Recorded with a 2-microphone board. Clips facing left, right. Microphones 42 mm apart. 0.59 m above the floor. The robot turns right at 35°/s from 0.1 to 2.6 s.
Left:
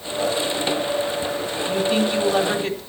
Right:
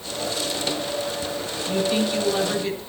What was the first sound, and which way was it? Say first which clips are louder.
A woman speaking: left 2 dB; 25° left.